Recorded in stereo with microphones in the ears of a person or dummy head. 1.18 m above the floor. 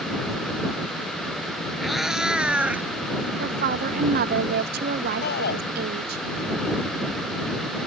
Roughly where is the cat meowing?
Centre.